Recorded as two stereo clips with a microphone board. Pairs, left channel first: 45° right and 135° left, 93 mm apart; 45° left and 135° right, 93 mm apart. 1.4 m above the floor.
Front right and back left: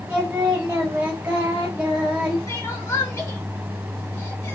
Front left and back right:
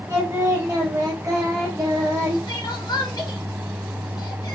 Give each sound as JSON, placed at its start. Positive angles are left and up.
{"t": 0.1, "sound": "singing", "azimuth_deg": -155, "distance_m": 1.2}
{"t": 2.5, "sound": "crying", "azimuth_deg": 5, "distance_m": 0.7}